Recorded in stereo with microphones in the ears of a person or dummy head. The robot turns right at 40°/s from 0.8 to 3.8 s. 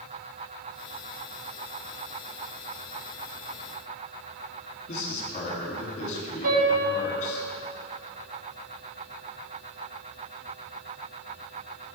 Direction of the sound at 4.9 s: 50° left (ahead or behind).